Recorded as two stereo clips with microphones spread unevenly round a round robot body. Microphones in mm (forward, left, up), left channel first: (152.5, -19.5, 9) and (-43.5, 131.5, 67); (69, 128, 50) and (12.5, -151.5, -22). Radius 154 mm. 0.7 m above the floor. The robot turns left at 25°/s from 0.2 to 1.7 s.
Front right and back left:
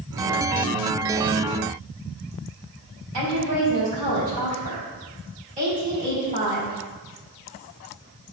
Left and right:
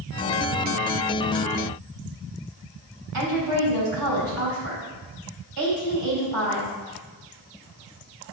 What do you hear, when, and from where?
3.1 s a woman speaking: 150° right, 3.5 m